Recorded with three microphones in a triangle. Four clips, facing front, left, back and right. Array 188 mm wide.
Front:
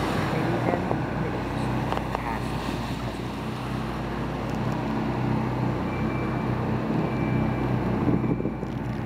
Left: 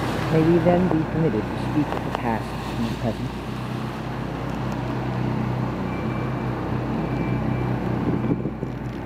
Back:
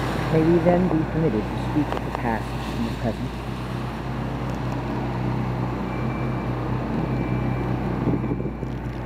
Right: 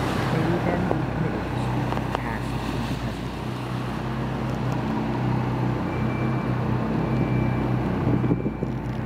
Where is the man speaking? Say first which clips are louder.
Left 10 dB, back 12 dB; 140° left.